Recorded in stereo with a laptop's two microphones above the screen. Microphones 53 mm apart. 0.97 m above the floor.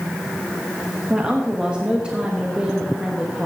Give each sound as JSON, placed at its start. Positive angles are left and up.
{"t": 1.1, "sound": "a woman speaking", "side_deg": -20, "distance_m": 1.1}